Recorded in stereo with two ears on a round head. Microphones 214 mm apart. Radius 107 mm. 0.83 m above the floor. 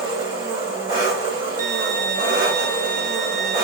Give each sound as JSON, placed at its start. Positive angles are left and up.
{"t": 0.0, "sound": "an engine running", "side_deg": -20, "distance_m": 1.8}
{"t": 1.6, "sound": "a violin", "side_deg": -35, "distance_m": 1.0}